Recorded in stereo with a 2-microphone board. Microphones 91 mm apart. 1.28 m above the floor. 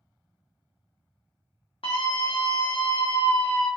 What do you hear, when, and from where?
1.8 s a scream: 75° left (ahead or behind), 0.5 m